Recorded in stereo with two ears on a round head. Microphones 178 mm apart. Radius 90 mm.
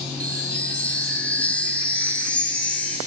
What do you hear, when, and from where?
0.2 s a chime: 5° left (ahead or behind), 3.5 m